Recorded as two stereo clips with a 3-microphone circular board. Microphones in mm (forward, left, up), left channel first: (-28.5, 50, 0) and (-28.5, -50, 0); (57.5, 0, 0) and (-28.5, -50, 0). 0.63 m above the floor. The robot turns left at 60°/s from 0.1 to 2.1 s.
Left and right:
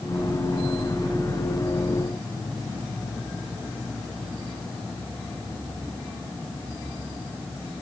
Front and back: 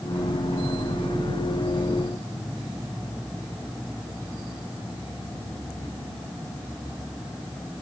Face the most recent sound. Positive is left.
No sound to turn to.